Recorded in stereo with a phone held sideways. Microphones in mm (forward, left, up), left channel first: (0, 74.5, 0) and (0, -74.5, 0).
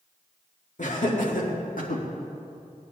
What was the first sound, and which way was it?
Laughter, 60° left (ahead or behind).